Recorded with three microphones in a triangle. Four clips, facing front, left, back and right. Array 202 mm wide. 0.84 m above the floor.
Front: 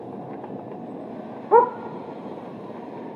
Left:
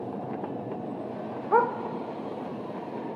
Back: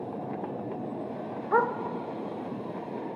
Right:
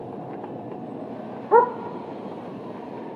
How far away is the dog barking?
About 0.7 m.